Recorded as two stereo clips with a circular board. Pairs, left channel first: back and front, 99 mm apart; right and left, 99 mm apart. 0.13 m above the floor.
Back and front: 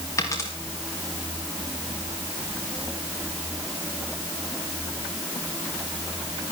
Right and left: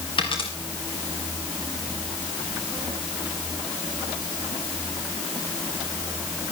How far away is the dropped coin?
About 4.5 m.